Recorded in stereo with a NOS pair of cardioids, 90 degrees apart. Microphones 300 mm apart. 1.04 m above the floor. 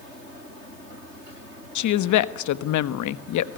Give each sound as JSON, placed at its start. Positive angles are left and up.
{"t": 1.8, "sound": "a woman speaking", "azimuth_deg": 70, "distance_m": 1.3}